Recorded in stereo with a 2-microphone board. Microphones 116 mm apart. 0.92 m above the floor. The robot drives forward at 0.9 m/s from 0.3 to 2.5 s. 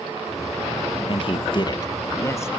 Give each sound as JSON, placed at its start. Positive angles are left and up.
{"t": 1.1, "sound": "a man speaking", "side_deg": 45, "distance_m": 0.7}